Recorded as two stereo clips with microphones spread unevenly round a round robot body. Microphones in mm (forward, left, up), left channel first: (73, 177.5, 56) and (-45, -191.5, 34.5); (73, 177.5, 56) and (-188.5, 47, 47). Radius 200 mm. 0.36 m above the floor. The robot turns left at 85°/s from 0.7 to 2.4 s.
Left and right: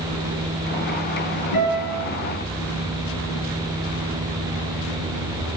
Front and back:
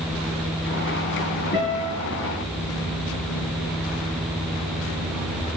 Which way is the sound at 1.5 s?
80° left.